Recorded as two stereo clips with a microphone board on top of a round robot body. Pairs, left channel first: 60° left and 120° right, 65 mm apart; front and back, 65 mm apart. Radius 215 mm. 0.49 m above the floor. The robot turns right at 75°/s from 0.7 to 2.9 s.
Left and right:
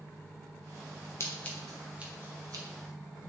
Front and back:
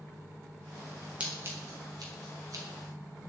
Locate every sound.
1.2 s scissors: 110° left, 1.5 m; by 2.6 s 145° right, 1.5 m